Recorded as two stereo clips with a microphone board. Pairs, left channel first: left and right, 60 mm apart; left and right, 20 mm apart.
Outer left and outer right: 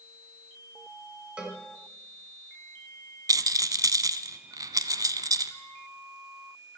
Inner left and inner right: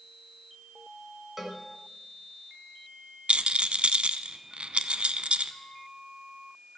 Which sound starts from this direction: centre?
A cowbell, at 1.4 s.